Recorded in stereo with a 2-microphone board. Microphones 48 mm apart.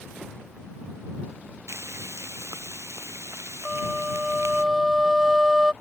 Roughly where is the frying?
Right.